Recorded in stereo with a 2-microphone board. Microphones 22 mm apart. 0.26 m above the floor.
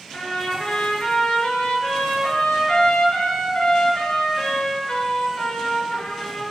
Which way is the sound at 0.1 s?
60° left (ahead or behind).